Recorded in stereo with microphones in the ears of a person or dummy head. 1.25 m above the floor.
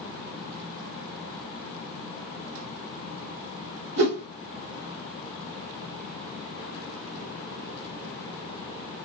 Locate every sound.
4.0 s a whoosh: 60° right (ahead or behind), 1.6 m